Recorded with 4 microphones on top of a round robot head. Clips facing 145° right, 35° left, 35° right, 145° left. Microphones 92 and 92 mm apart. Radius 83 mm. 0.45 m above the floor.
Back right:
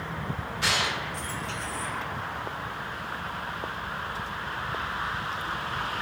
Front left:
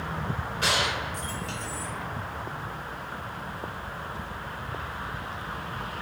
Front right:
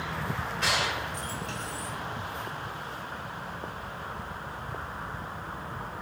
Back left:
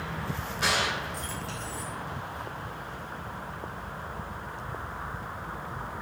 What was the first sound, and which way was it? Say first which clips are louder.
A gunshot: front left 1 dB, back left 2 dB; 60° left.